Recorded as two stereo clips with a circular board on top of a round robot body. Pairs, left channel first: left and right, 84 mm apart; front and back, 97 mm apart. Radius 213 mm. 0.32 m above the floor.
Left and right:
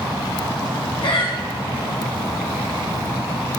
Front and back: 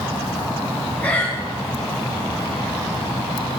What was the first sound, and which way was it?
Breathing, 75° left.